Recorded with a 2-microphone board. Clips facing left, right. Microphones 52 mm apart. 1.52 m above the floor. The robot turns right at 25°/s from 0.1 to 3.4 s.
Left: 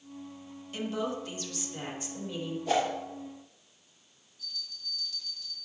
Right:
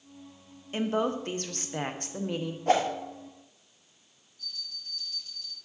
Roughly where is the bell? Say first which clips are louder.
Even; right.